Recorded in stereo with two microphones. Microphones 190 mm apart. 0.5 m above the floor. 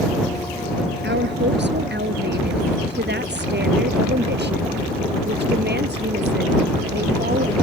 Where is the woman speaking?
80° right; by 7.5 s 70° right (ahead or behind).